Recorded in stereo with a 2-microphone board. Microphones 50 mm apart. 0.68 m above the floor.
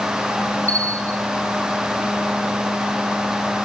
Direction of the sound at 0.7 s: 30° left (ahead or behind).